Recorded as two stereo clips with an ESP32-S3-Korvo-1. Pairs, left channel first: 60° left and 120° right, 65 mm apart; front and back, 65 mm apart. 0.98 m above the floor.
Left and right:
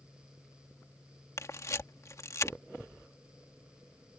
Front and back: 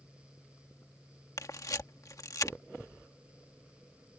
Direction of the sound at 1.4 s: 25° left.